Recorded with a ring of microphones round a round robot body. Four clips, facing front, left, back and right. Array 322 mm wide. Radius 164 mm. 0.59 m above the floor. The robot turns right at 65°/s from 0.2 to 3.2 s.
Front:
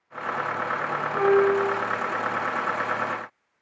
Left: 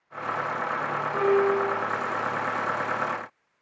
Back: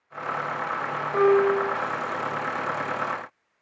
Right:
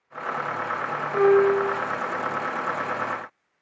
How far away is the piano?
About 1.4 m.